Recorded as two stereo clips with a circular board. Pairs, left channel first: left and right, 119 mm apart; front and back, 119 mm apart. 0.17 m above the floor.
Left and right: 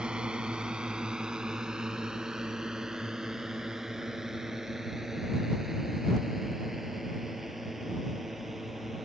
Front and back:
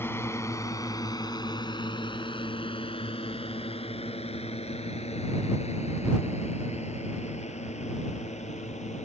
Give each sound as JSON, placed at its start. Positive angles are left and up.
{"t": 0.0, "sound": "a drone", "azimuth_deg": -20}